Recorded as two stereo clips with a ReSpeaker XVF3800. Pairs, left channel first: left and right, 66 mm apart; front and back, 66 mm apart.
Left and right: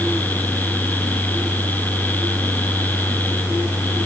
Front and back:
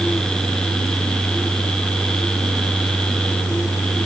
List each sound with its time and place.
Only background noise.